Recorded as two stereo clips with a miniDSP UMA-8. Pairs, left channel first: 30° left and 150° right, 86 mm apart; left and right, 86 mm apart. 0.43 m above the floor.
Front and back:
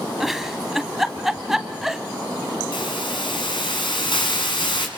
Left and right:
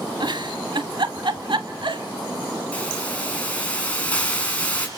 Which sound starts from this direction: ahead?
A hiss, at 2.7 s.